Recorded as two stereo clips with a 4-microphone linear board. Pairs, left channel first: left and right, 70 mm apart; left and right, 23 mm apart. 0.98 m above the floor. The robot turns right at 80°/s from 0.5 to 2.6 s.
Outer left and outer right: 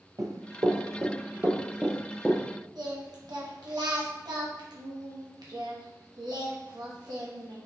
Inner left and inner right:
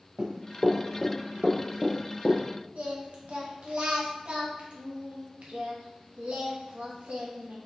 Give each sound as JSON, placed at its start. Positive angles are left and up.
{"t": 0.2, "sound": "running footsteps", "side_deg": -55, "distance_m": 1.6}
{"t": 2.8, "sound": "singing", "side_deg": -70, "distance_m": 1.0}